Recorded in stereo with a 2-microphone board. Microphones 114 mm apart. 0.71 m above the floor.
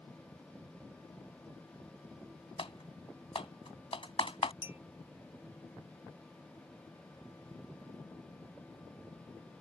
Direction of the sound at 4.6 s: 20° right (ahead or behind).